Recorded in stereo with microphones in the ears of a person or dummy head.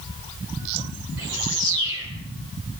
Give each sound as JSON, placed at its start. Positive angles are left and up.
{"t": 1.2, "sound": "a bird", "side_deg": -65, "distance_m": 8.0}